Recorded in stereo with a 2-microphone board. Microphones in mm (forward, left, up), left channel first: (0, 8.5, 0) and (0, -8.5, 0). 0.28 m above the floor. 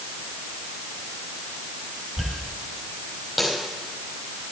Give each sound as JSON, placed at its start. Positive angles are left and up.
{"t": 2.2, "sound": "a dropped coin", "side_deg": -5, "distance_m": 4.0}